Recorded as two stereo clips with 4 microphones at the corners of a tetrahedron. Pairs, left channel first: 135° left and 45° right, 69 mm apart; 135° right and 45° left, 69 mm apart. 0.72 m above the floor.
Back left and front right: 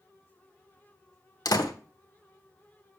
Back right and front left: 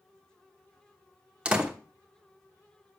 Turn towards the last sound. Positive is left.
turn(degrees=120)